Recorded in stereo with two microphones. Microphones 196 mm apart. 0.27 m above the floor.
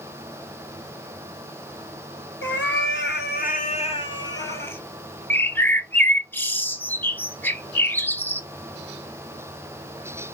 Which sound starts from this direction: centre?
A bird, at 5.3 s.